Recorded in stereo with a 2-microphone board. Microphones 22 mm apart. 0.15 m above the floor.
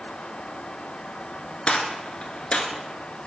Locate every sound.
1.7 s a gunshot: 60° left (ahead or behind), 0.6 m